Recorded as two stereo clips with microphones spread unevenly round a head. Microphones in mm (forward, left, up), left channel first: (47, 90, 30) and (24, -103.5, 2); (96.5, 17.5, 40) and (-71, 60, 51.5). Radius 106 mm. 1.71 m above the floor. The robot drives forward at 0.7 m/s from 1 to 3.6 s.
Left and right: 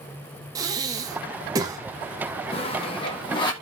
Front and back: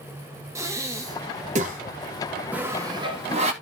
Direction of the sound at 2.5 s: 95° left.